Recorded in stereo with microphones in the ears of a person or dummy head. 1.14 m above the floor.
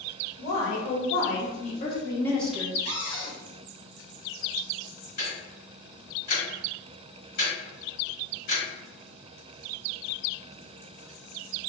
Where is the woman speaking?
60° left (ahead or behind), 1.2 m; by 2.8 s 15° right (ahead or behind), 0.6 m.